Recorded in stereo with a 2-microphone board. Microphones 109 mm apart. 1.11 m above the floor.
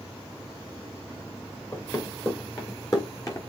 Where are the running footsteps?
30° left (ahead or behind), 3.5 m; by 3.4 s 35° left (ahead or behind), 3 m.